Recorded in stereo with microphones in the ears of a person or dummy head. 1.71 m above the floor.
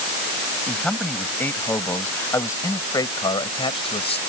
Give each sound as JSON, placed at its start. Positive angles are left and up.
{"t": 0.7, "sound": "a man speaking", "side_deg": 5}